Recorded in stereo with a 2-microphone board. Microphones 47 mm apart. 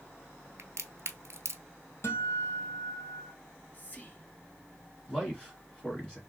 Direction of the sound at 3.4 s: 35° left (ahead or behind).